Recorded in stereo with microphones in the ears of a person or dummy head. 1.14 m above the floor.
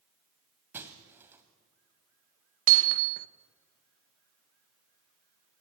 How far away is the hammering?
About 1.0 m.